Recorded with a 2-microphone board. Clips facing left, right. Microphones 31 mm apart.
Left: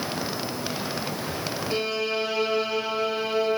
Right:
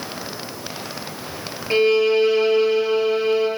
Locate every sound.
1.7 s a violin: 55° right (ahead or behind), 1.4 m